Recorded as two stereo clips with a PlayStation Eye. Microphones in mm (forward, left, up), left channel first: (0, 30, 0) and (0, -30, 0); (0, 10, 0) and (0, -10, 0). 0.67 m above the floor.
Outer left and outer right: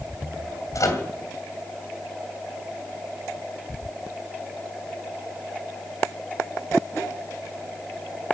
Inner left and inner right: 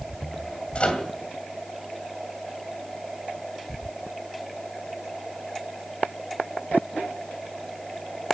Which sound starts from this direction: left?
A microwave, at 0.8 s.